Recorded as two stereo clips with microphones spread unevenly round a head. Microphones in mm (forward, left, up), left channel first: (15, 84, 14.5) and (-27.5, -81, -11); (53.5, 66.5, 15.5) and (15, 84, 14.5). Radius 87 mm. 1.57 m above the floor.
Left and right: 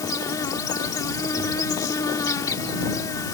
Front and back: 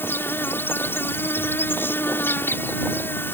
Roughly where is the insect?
Ahead.